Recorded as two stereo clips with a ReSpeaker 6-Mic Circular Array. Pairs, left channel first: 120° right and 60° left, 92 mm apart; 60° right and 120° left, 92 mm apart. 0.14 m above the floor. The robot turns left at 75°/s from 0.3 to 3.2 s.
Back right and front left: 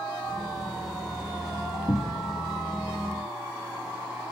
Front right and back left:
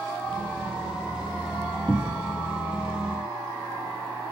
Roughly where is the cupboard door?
Behind right.